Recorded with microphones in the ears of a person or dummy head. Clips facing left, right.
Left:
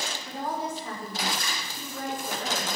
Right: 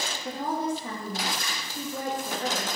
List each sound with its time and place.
0.2 s a woman speaking: 40° right (ahead or behind), 3 m